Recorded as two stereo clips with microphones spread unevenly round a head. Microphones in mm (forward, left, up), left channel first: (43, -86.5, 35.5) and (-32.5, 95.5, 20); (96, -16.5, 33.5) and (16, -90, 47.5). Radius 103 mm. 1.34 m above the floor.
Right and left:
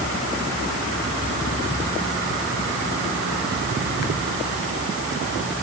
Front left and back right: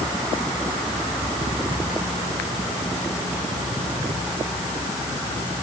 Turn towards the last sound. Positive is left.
No sound to turn to.